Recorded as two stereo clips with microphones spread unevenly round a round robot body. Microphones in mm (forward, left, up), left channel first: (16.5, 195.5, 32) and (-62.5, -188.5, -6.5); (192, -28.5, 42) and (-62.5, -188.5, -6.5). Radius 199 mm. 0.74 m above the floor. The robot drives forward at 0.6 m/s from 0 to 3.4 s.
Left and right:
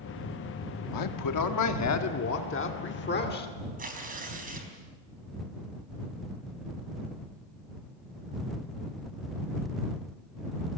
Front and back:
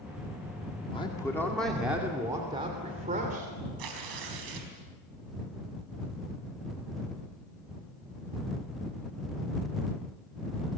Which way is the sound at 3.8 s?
170° right.